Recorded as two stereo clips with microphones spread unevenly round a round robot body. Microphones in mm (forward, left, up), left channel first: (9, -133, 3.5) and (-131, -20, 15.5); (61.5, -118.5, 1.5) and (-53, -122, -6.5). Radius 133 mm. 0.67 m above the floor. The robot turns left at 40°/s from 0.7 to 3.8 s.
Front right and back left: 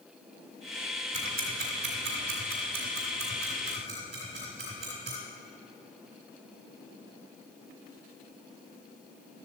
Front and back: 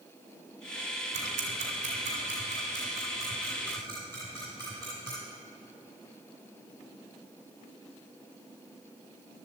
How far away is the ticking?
About 2.5 m.